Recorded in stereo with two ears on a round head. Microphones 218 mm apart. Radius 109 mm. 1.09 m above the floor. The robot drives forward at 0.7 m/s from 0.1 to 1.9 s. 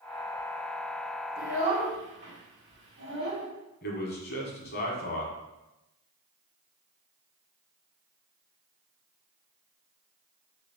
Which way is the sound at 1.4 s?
55° right (ahead or behind).